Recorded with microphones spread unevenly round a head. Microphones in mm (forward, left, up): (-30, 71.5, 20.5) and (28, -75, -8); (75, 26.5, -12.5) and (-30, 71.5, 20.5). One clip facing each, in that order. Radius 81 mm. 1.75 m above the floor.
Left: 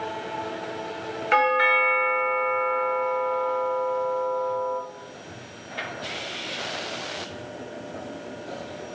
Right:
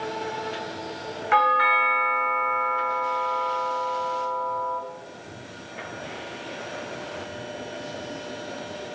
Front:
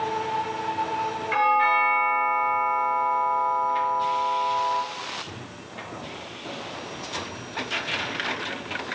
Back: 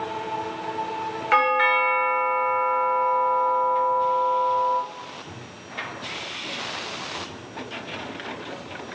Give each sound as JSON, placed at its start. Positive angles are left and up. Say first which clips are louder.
{"t": 1.3, "sound": "a doorbell", "louder": "left 1 dB, back 1 dB", "azimuth_deg": 170, "distance_m": 0.9}